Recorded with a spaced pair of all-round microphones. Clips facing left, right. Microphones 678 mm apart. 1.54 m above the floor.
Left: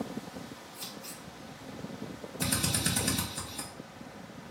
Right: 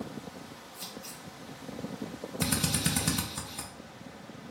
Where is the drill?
35° right (ahead or behind), 0.6 m.